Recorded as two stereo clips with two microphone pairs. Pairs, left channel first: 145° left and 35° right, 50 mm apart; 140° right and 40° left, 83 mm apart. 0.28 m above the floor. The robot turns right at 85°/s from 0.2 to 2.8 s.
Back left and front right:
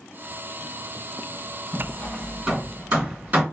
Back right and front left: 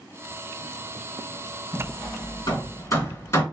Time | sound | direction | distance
1.7 | hammering | 175° right | 2.5 m